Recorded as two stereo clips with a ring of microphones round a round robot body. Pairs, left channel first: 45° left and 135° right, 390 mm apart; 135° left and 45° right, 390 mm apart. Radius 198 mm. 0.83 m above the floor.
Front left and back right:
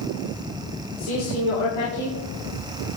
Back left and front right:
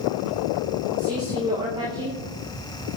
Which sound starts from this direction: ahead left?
A man speaking, at 1.0 s.